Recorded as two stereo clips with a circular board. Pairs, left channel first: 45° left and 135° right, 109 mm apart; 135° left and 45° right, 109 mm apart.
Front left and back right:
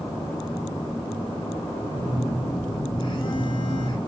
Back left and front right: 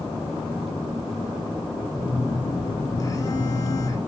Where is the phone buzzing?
85° left, 2.5 m.